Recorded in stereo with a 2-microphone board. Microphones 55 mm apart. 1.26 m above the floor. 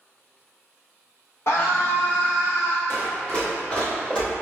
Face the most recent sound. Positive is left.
turn(degrees=10)  # may be behind; listen again after turning